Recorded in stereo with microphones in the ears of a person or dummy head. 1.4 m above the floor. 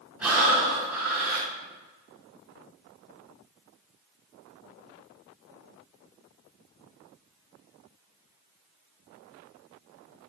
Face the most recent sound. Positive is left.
turn(degrees=-5)  # may be behind; listen again after turning